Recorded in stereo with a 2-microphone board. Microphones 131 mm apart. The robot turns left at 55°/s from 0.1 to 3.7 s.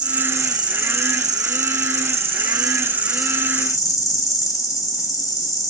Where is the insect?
10° right, 0.8 m; by 5.7 s 155° left, 0.8 m.